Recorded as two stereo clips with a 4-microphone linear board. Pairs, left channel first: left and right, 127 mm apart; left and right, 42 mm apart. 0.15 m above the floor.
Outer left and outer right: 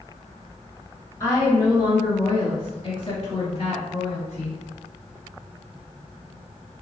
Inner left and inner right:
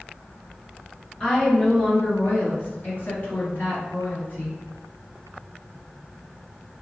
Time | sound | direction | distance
1.2 | a woman speaking | 20° left (ahead or behind) | 1.7 m